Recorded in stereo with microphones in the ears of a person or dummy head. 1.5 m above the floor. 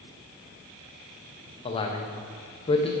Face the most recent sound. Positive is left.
turn(degrees=30)  # may be behind; listen again after turning